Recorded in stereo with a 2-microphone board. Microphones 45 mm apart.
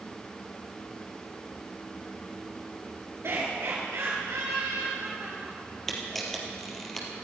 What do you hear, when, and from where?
3.2 s laughter: 55° right (ahead or behind), 3 m; by 5.6 s 80° right, 6 m
5.9 s a camera shutter: 5° left (ahead or behind), 3 m